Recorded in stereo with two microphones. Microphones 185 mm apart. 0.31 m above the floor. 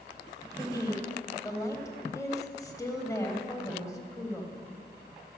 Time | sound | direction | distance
0.6 | a woman speaking | 20° left (ahead or behind) | 1.3 m